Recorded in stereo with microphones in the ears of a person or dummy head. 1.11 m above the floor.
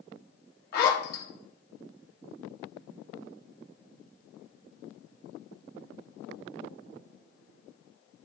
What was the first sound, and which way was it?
A zipper, 55° left (ahead or behind).